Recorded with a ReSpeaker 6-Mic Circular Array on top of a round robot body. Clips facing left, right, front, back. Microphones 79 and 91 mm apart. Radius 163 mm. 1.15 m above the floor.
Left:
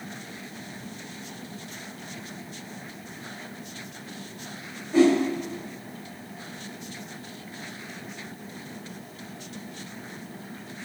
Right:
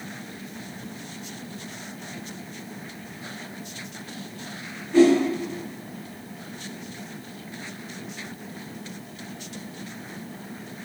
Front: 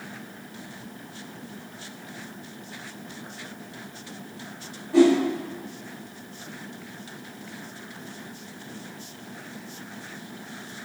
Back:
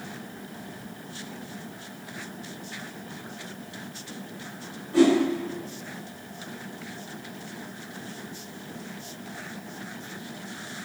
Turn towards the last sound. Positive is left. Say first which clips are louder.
# right 3 dB, front 2 dB
turn(degrees=20)